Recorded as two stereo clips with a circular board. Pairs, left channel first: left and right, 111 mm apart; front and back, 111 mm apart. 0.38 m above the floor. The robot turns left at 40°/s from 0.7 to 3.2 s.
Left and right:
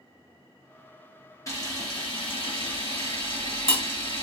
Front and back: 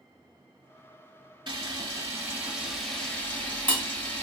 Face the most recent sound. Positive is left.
turn(degrees=75)